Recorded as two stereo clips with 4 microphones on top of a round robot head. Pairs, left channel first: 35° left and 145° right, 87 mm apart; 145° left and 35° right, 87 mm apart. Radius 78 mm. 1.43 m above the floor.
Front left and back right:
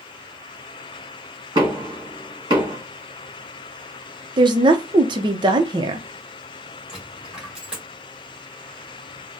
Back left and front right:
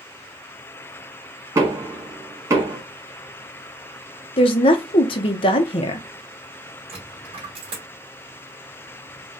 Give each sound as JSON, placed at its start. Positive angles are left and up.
{"t": 1.6, "sound": "knocking", "azimuth_deg": -95, "distance_m": 1.8}
{"t": 4.4, "sound": "a woman speaking", "azimuth_deg": 175, "distance_m": 0.8}
{"t": 6.9, "sound": "a dropped coin", "azimuth_deg": -60, "distance_m": 1.9}